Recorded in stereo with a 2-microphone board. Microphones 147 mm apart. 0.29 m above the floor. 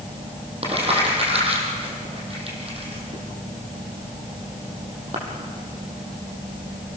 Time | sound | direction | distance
0.6 | crumpling | 40° right (ahead or behind) | 5.5 m